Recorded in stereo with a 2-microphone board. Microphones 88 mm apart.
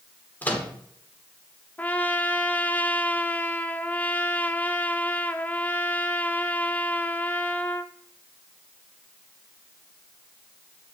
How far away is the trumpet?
About 0.5 m.